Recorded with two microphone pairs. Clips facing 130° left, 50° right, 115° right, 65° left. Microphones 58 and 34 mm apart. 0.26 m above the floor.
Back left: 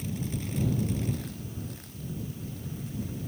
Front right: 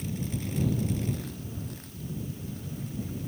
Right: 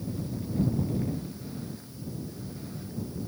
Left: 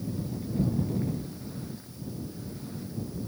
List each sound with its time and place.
Only background noise.